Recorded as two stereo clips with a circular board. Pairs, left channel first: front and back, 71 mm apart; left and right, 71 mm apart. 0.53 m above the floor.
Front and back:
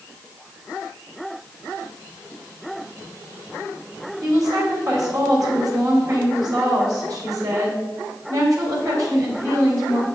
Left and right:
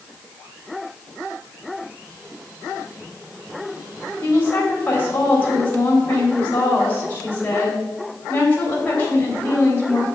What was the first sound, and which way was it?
A woman speaking, 150° left.